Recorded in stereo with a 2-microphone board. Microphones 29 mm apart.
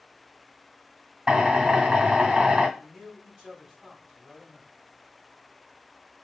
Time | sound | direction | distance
1.3 | a drill | 35° right (ahead or behind) | 1.6 m
2.8 | a man speaking | 20° right (ahead or behind) | 3 m